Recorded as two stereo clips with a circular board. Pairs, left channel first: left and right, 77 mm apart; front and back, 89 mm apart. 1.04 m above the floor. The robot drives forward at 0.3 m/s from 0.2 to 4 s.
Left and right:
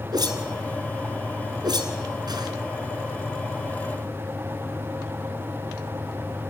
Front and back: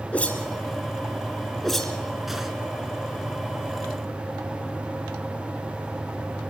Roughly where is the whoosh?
Right.